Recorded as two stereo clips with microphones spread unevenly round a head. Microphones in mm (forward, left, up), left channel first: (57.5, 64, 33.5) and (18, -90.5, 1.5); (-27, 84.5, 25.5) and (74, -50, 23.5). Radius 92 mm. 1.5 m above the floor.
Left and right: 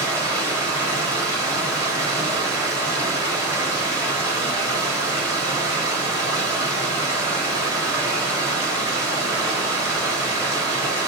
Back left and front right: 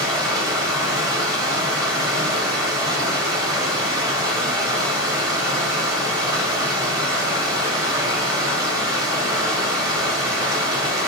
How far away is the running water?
About 1.0 m.